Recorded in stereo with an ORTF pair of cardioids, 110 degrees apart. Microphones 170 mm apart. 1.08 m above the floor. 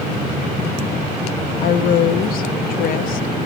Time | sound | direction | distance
1.6 | a woman speaking | 60° left | 0.6 m